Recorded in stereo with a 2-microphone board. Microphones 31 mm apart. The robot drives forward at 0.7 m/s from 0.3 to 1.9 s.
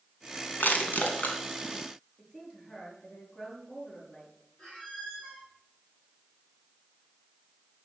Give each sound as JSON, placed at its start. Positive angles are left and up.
{"t": 0.6, "sound": "crushing", "side_deg": 75, "distance_m": 2.5}
{"t": 2.2, "sound": "a woman speaking", "side_deg": 35, "distance_m": 6.0}
{"t": 4.6, "sound": "a squeak", "side_deg": 35, "distance_m": 7.5}